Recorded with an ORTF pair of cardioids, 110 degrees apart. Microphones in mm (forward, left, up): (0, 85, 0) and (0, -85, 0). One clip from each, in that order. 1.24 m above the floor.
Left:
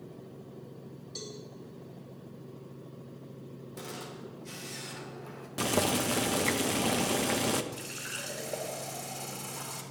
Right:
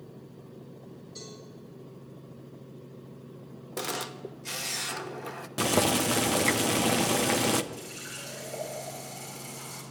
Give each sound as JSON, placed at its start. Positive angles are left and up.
{"t": 1.1, "sound": "a cowbell", "azimuth_deg": 65, "distance_m": 5.0}
{"t": 3.8, "sound": "a camera shutter", "azimuth_deg": -60, "distance_m": 0.8}
{"t": 5.6, "sound": "boiling", "azimuth_deg": -15, "distance_m": 0.7}
{"t": 7.7, "sound": "a running tap", "azimuth_deg": 45, "distance_m": 3.5}